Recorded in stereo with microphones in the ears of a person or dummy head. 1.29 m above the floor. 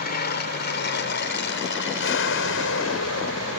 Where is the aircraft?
50° left (ahead or behind); by 3.6 s 75° left (ahead or behind).